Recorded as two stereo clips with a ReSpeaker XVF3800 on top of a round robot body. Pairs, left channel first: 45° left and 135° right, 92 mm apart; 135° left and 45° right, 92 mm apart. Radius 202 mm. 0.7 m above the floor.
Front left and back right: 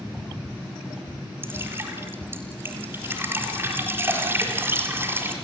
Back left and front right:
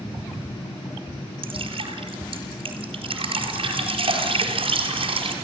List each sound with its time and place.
1.4 s dripping: 70° right, 4 m